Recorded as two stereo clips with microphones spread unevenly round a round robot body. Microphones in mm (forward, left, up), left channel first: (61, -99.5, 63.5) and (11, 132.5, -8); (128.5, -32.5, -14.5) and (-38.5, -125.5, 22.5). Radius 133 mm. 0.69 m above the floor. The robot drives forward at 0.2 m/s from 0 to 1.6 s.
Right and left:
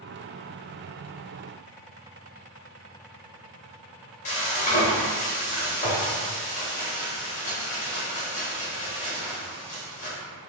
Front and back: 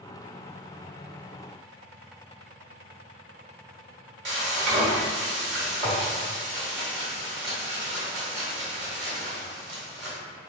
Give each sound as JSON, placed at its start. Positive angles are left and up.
{"t": 4.2, "sound": "frying", "azimuth_deg": -145, "distance_m": 1.5}